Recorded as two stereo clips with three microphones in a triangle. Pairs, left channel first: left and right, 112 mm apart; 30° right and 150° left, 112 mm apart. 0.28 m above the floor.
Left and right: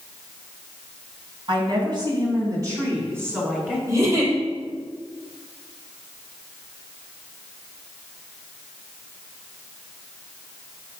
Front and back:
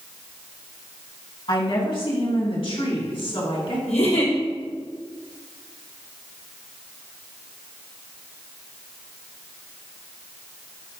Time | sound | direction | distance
1.5 | a woman speaking | 60° right | 2.5 m
3.9 | a giggle | 25° right | 3 m